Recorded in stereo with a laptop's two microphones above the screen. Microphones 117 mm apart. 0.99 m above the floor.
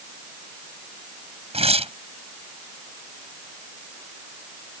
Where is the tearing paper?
60° right (ahead or behind).